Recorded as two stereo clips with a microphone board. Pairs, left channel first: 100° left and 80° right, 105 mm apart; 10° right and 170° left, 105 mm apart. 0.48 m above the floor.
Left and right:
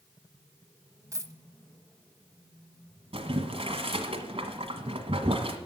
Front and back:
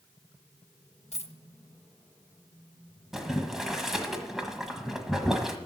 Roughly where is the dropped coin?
Ahead.